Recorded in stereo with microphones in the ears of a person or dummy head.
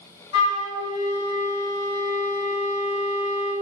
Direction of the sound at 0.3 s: 65° left (ahead or behind).